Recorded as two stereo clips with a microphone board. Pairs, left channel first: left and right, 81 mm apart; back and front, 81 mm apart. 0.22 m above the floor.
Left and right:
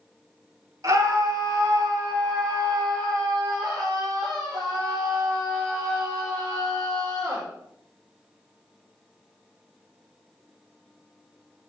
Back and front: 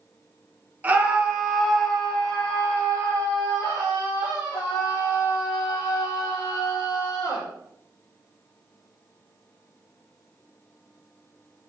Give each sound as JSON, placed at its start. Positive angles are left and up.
{"t": 0.8, "sound": "a scream", "azimuth_deg": -65, "distance_m": 2.0}